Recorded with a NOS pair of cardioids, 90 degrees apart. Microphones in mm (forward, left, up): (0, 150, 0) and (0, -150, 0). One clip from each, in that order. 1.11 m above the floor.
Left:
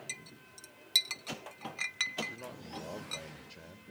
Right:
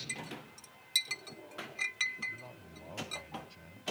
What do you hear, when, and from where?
0.1 s a clink: 20° left, 1.0 m
2.3 s a man speaking: 60° left, 1.9 m